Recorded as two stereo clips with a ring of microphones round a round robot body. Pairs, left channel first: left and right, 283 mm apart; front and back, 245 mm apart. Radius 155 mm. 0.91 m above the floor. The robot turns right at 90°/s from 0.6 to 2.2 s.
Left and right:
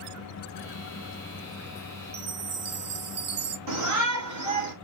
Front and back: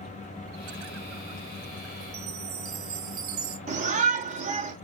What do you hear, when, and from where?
2.1 s a chime: 135° right, 0.7 m; by 3.6 s 130° right, 0.7 m
3.7 s a shout: 115° right, 2.5 m